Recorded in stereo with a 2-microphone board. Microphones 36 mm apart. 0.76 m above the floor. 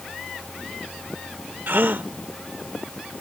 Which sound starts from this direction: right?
A gasp, at 1.7 s.